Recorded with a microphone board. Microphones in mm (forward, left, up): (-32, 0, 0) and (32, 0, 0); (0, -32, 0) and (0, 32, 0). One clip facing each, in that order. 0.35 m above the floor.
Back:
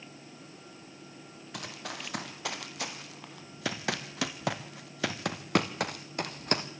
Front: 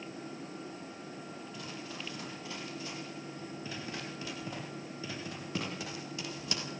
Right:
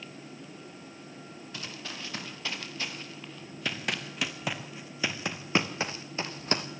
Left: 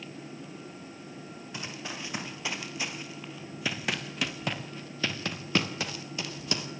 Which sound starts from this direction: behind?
Running footsteps, at 1.5 s.